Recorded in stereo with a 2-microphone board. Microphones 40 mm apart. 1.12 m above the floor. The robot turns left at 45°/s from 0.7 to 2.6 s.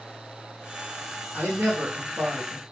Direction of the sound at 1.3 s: 100° right.